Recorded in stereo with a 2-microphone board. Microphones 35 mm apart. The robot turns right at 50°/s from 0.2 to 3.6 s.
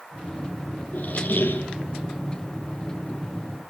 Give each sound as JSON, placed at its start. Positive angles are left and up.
{"t": 0.9, "sound": "a squeak", "azimuth_deg": 60, "distance_m": 1.2}